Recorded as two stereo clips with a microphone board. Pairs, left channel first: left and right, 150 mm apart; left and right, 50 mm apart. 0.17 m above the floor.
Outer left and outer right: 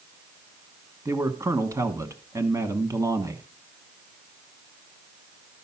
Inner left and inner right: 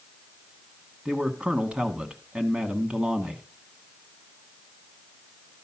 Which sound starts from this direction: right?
A man speaking, at 1.1 s.